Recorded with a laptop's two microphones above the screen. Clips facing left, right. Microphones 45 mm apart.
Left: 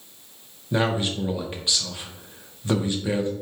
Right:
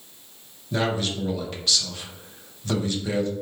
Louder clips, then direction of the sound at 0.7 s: Left 2 dB; 20° left (ahead or behind).